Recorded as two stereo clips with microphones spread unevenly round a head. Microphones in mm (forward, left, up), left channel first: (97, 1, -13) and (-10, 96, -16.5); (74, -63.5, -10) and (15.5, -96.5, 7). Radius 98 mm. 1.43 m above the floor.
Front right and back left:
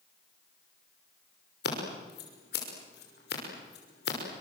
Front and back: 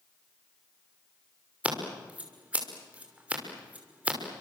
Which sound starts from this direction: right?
Scissors, at 1.6 s.